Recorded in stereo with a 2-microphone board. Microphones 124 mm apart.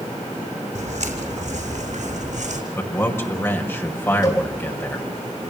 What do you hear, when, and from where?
0.8 s footsteps: 70° right (ahead or behind), 3 m; by 2.6 s 75° right (ahead or behind), 4 m
2.8 s a man speaking: 20° left (ahead or behind), 5 m
4.2 s a cowbell: 35° left (ahead or behind), 5 m